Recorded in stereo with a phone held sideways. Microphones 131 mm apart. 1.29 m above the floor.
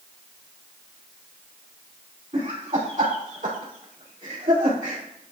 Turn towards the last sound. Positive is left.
turn(degrees=-85)